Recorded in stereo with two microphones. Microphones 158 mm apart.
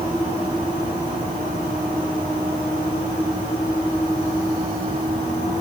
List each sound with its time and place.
Only background noise.